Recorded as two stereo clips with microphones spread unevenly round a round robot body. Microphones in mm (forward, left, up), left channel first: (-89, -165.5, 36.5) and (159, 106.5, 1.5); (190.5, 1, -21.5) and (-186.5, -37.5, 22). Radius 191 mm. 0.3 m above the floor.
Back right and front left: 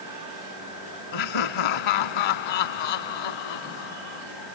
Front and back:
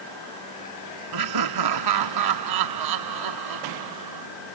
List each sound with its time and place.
1.1 s laughter: 145° right